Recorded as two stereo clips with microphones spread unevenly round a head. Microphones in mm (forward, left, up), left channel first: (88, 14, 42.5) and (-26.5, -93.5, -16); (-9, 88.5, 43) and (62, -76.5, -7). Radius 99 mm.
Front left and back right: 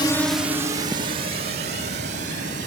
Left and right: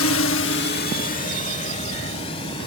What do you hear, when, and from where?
0.0 s a drone: 120° left; by 2.7 s straight behind